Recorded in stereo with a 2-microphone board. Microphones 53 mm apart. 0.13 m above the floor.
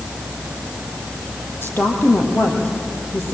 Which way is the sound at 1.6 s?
40° left (ahead or behind).